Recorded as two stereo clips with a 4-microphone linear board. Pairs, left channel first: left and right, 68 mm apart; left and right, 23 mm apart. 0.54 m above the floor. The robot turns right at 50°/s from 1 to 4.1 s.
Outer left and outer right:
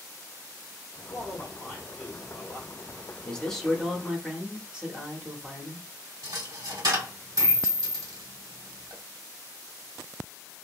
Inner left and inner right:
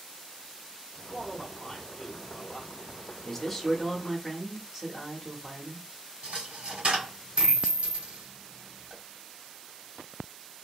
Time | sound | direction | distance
1.1 | a man speaking | 125° left | 1.8 m
3.2 | a man speaking | 160° left | 0.9 m
6.2 | a dropped coin | 70° right (ahead or behind) | 1.9 m